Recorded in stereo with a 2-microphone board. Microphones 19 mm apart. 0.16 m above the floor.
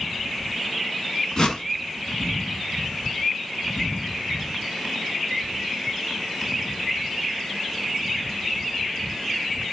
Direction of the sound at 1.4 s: 40° left (ahead or behind).